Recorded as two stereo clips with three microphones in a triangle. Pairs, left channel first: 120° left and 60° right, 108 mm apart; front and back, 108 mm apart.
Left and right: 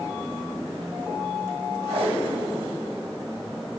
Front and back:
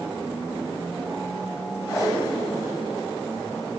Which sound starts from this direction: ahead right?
Tape being pulled, at 1.9 s.